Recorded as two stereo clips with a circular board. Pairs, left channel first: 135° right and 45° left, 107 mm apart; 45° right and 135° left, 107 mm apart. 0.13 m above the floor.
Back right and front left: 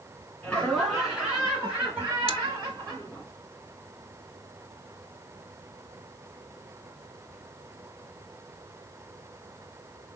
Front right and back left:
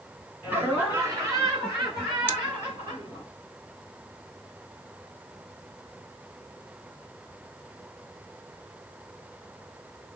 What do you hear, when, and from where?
0.4 s laughter: 170° left, 1.8 m; by 3.3 s 90° left, 3 m
2.3 s scissors: 110° right, 0.8 m